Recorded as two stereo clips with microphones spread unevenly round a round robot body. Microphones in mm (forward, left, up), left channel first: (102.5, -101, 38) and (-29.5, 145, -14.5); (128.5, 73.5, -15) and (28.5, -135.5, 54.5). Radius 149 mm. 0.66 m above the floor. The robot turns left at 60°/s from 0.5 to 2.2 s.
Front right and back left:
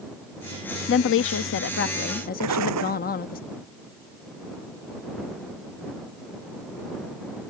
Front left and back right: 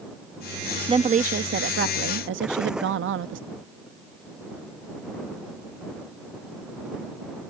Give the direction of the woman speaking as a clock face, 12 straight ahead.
1 o'clock.